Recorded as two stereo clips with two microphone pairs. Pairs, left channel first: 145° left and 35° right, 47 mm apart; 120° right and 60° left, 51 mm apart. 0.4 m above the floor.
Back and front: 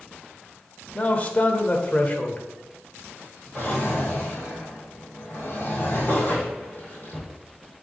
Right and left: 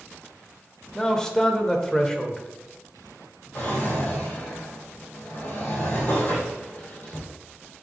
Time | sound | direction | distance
0.9 | a man speaking | 175° left | 1.0 m
3.5 | a drawer | 165° right | 3.5 m